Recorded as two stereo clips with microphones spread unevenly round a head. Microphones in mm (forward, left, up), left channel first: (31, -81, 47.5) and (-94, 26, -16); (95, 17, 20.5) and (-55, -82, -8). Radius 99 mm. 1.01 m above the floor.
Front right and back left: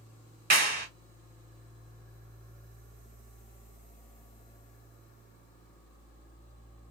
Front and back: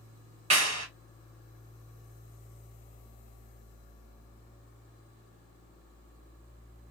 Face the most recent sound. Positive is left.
turn(degrees=155)